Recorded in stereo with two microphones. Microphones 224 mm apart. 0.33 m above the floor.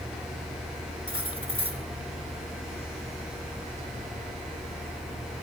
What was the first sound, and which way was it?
Cutlery clinking, 65° left (ahead or behind).